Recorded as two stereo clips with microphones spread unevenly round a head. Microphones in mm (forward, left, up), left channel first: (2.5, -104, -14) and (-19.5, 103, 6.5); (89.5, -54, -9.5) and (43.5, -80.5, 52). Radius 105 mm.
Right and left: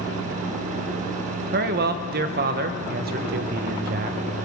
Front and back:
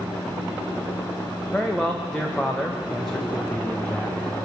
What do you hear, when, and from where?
1.5 s a man speaking: 135° left, 0.9 m